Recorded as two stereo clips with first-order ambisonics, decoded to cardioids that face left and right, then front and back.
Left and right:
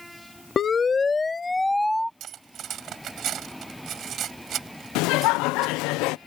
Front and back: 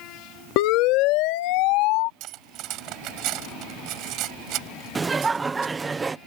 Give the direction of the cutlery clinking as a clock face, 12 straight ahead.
5 o'clock.